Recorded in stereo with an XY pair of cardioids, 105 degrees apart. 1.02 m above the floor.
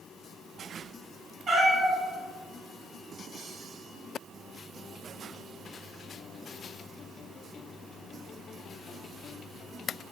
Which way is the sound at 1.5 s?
50° right.